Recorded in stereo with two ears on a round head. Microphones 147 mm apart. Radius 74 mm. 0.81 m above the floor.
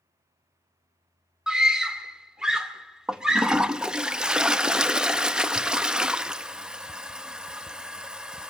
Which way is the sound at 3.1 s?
5° right (ahead or behind).